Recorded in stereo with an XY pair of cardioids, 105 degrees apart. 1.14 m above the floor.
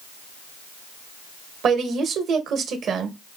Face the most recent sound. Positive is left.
turn(degrees=-65)